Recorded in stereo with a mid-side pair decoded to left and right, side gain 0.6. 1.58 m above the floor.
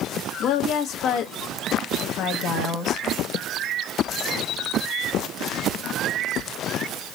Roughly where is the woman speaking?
Ahead left.